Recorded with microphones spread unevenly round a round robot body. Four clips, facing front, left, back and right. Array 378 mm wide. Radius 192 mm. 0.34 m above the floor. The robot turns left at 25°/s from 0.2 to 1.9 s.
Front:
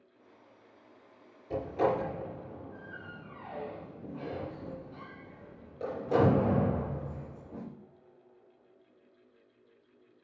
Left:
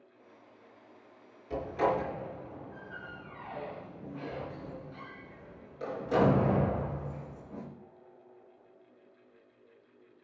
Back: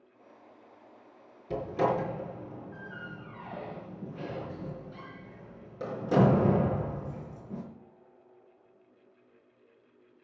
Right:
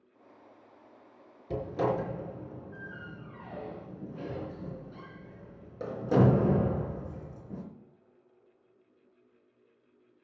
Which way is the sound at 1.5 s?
115° right.